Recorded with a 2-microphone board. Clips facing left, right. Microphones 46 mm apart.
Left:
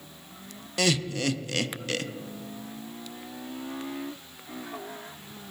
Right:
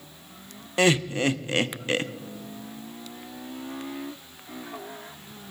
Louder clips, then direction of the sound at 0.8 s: Right 5 dB; 30° right (ahead or behind).